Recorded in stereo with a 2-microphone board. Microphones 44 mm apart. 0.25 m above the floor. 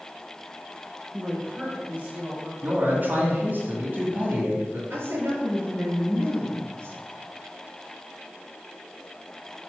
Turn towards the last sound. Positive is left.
turn(degrees=-55)  # may be behind; listen again after turning